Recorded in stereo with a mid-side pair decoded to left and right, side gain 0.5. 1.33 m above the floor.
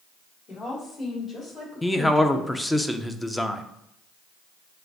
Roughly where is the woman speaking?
Ahead left.